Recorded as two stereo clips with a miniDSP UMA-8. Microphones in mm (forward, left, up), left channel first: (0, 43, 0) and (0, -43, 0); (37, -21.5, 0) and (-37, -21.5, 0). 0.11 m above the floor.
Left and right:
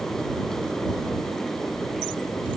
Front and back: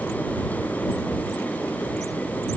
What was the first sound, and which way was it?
Only background noise.